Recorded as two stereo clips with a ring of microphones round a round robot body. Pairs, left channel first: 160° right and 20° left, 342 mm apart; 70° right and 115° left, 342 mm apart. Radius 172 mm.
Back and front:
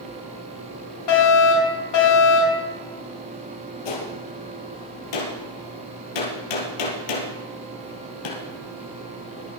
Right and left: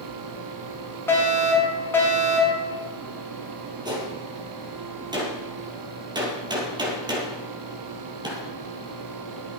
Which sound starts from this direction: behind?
A gunshot, at 3.9 s.